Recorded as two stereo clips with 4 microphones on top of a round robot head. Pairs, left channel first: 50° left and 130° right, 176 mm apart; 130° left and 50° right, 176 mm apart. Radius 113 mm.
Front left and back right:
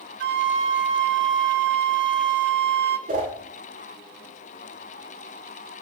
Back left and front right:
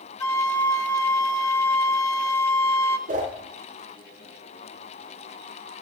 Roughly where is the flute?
Behind right.